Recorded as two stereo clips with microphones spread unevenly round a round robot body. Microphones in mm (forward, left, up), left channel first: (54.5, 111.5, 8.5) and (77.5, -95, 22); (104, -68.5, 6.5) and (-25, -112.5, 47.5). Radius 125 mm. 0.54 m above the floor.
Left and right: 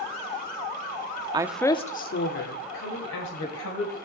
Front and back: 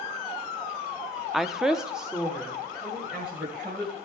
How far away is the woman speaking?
About 0.6 m.